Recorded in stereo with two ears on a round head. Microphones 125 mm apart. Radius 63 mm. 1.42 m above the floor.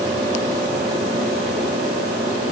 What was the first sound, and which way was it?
Only background noise.